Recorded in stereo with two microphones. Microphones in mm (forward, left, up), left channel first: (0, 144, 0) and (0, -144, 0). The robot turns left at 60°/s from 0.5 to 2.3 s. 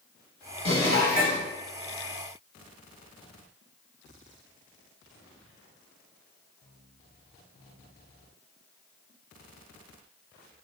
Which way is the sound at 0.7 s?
75° left.